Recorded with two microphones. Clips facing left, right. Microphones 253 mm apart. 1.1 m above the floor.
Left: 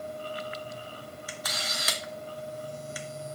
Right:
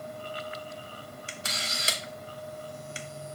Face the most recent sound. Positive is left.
turn(degrees=-25)  # may be behind; listen again after turning